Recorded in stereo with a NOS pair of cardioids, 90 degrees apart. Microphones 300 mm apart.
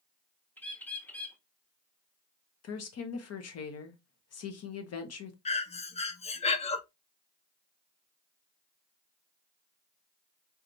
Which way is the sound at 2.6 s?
55° left.